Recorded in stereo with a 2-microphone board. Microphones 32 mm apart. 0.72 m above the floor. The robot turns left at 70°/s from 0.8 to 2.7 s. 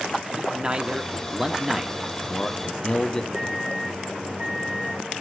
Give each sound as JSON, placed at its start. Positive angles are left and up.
{"t": 0.4, "sound": "a man speaking", "side_deg": -30, "distance_m": 1.0}
{"t": 3.3, "sound": "a microwave", "side_deg": -85, "distance_m": 4.0}